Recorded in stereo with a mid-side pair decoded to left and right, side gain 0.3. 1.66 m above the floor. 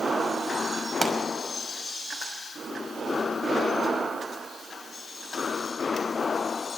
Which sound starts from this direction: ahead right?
A pop, at 1.0 s.